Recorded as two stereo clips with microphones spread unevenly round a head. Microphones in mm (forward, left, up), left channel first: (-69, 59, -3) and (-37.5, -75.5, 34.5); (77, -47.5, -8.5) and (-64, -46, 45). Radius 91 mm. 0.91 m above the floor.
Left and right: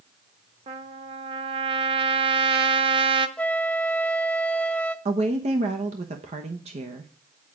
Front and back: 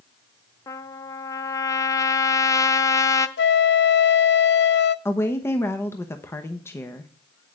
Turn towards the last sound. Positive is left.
turn(degrees=-30)